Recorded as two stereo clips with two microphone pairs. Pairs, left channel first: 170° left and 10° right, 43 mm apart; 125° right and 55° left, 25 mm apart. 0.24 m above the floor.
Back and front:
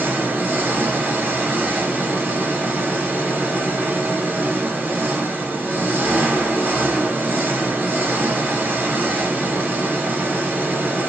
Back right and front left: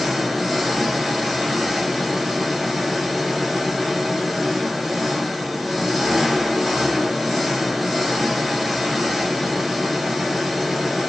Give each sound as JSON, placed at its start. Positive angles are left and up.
{"t": 0.0, "sound": "an engine running", "azimuth_deg": -30, "distance_m": 1.6}